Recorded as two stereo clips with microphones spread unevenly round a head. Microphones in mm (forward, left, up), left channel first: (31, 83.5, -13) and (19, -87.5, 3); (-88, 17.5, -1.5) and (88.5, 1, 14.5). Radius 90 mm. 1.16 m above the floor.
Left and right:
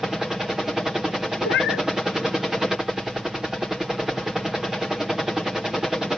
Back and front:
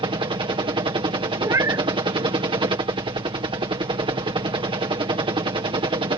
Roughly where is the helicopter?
Ahead.